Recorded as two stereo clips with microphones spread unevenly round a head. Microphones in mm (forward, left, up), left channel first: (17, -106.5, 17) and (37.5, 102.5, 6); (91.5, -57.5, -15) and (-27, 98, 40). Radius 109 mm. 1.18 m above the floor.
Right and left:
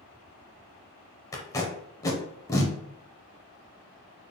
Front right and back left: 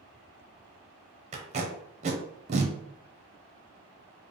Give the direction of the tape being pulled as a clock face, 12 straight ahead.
6 o'clock.